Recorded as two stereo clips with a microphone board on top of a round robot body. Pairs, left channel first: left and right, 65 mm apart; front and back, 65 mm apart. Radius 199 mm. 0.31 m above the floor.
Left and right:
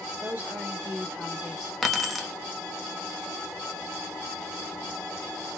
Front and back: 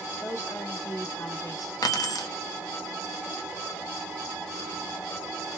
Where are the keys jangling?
Straight ahead, 1.2 m.